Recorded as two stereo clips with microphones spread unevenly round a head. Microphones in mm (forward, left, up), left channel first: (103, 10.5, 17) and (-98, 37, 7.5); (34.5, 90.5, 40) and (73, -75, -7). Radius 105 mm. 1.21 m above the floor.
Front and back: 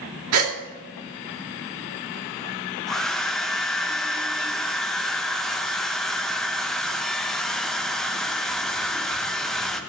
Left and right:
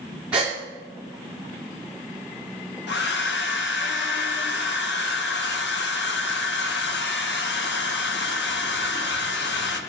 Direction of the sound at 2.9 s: 80° left.